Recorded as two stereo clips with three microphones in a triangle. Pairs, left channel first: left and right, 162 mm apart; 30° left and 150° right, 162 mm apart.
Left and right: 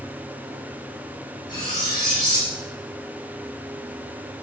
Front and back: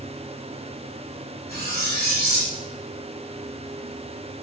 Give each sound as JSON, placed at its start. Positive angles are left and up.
{"t": 1.5, "sound": "cutlery clinking", "azimuth_deg": 30, "distance_m": 1.5}